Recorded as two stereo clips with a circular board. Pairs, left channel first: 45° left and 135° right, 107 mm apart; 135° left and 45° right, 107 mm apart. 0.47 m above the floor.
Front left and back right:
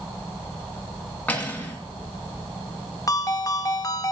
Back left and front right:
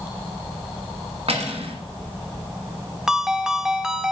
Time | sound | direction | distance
1.3 | cutlery clinking | 30° right | 2.5 m
3.1 | a ringtone | 35° left | 0.8 m